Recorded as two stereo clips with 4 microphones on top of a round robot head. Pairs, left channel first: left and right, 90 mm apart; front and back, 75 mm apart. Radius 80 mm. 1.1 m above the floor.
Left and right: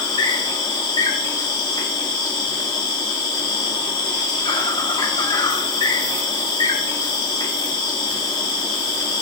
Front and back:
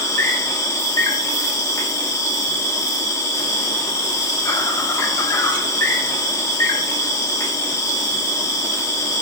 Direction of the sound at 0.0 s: 50° left.